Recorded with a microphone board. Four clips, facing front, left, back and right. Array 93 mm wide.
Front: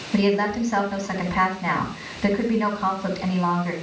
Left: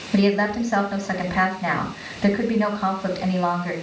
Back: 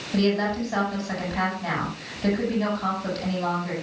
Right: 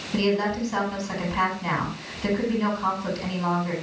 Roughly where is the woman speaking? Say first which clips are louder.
Left 4 dB, front 2 dB; left.